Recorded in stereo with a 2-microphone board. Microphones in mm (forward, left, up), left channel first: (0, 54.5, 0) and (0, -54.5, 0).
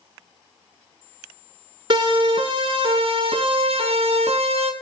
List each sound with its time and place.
1.9 s a siren: 45° right (ahead or behind), 5.5 m; by 4.7 s 75° right (ahead or behind), 3 m